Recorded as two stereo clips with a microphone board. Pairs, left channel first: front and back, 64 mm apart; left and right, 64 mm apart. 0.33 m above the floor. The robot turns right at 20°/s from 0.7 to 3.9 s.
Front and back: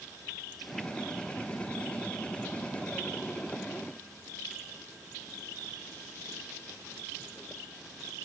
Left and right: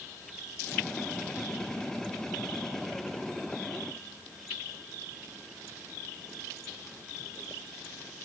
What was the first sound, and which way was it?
Only background noise.